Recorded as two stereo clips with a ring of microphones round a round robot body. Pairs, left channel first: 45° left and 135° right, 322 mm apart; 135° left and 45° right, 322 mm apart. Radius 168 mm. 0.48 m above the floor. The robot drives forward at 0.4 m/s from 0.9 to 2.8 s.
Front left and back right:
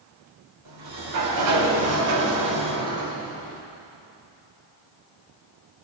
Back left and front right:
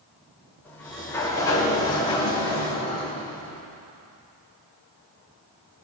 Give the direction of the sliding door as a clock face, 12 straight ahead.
5 o'clock.